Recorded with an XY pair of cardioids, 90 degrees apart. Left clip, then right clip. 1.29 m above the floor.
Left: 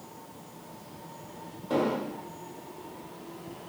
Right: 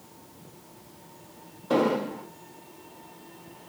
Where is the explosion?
45° right, 1.0 m.